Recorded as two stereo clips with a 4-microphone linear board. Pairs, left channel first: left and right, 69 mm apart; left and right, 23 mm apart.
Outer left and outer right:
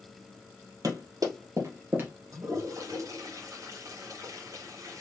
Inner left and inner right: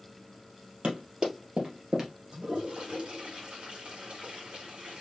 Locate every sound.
0.8 s running footsteps: 60° right (ahead or behind), 2.5 m; by 2.1 s 25° right (ahead or behind), 1.5 m
2.3 s a toilet flushing: 50° right (ahead or behind), 1.8 m